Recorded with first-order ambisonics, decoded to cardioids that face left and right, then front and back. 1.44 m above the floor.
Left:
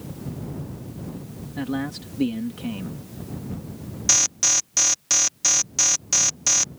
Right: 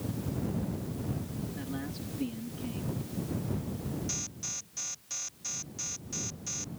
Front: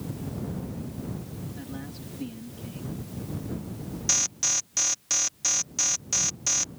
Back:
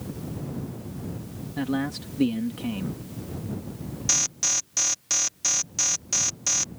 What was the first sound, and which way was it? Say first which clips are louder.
A man speaking: left 14 dB, back 16 dB; 135° left.